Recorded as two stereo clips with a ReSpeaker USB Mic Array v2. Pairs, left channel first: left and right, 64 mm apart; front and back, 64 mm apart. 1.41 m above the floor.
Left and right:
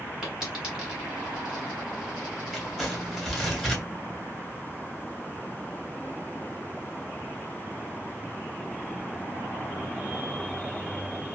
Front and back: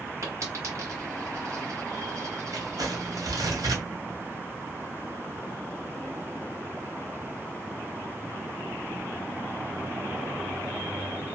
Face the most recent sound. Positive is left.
turn(degrees=180)